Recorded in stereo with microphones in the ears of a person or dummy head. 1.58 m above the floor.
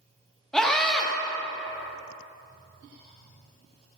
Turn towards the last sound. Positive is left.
turn(degrees=0)  # may be behind; listen again after turning